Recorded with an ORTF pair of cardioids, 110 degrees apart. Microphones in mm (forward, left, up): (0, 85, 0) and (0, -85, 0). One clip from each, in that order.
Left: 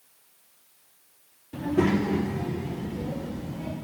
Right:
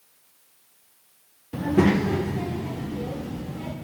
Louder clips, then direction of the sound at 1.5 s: Right 3 dB; 20° right.